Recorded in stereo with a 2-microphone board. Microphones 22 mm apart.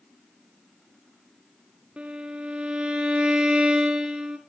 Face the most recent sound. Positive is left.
turn(degrees=-55)  # may be behind; listen again after turning